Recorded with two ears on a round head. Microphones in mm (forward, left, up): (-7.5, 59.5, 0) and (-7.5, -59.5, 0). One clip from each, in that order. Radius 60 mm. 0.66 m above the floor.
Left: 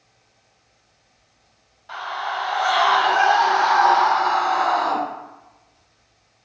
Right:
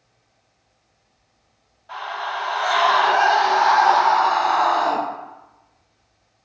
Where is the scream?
40° left (ahead or behind), 1.3 m; by 5.0 s 15° right (ahead or behind), 1.7 m.